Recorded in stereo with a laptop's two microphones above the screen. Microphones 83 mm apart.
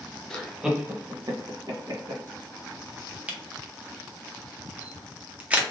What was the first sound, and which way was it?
Laughter, 5° left (ahead or behind).